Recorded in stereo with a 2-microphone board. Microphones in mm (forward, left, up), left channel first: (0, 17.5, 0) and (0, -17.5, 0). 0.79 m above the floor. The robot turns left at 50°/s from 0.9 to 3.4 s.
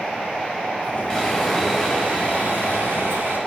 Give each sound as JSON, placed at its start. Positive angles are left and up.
{"t": 1.1, "sound": "sawing", "azimuth_deg": 15, "distance_m": 6.0}